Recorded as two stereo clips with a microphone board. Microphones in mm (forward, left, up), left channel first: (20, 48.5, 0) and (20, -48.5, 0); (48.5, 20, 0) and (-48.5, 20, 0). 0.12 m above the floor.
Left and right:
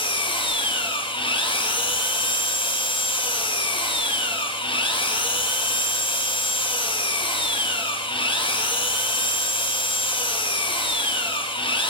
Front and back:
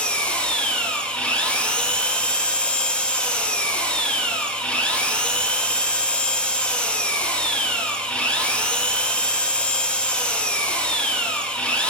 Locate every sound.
0.0 s an engine running: 75° left, 0.8 m